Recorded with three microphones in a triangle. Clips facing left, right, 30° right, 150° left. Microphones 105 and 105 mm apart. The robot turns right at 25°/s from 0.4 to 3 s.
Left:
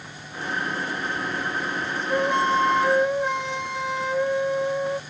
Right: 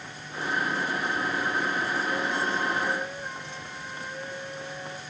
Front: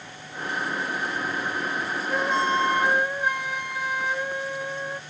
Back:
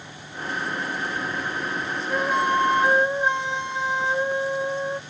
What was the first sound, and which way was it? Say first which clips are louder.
A flute: left 7 dB, back 2 dB; 65° left.